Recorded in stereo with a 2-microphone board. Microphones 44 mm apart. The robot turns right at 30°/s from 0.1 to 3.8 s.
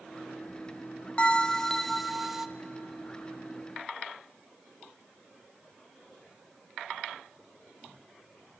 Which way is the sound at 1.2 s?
150° left.